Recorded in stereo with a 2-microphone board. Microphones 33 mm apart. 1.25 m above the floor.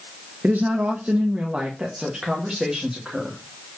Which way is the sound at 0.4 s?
60° right (ahead or behind).